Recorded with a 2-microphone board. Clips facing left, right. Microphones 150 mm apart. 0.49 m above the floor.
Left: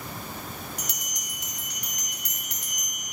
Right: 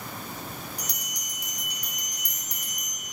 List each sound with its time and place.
0.8 s a bell: 75° left (ahead or behind), 1.6 m